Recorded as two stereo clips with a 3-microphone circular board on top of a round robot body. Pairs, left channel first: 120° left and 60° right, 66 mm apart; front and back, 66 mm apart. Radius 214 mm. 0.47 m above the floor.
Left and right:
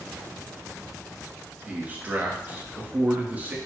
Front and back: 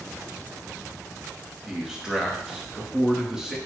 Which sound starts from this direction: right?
A man speaking, at 1.6 s.